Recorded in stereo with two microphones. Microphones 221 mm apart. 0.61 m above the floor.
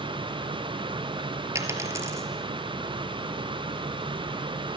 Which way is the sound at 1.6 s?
15° right (ahead or behind).